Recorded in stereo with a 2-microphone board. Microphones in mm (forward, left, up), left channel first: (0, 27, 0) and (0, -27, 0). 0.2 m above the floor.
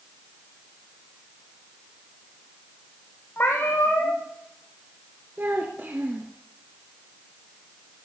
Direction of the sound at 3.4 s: 35° left (ahead or behind).